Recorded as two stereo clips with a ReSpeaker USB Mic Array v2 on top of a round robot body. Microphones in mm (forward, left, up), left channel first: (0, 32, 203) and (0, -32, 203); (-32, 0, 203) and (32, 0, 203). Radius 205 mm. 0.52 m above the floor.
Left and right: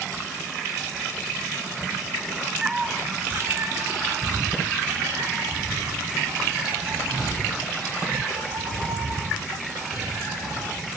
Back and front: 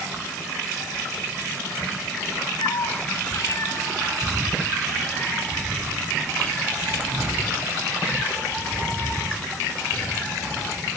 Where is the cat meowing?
170° right, 1.5 m; by 10.8 s 110° right, 12.5 m.